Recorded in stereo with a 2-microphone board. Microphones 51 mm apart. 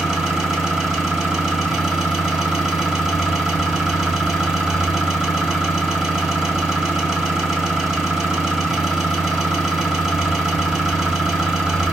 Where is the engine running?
10° right (ahead or behind), 1.3 m.